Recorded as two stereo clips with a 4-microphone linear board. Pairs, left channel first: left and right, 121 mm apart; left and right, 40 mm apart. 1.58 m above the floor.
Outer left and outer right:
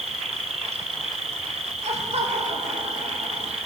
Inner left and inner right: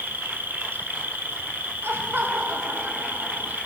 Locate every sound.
0.0 s an insect: 60° right (ahead or behind), 1.1 m
1.8 s laughter: 65° right (ahead or behind), 1.9 m